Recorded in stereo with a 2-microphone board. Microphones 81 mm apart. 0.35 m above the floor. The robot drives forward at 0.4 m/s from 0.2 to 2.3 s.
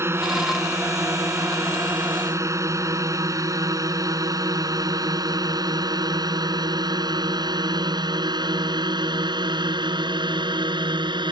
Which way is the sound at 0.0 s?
30° right (ahead or behind).